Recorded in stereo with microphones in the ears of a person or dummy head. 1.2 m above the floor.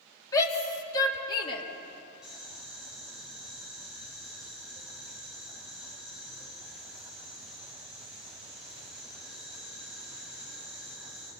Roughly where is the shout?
Centre.